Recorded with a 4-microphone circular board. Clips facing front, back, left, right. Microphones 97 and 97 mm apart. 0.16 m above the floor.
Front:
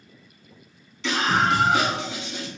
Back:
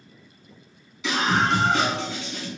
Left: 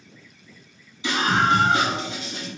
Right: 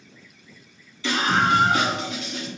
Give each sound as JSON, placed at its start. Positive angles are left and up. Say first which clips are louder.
{"t": 1.0, "sound": "a scream", "louder": "front 1 dB, even", "azimuth_deg": 110, "distance_m": 1.1}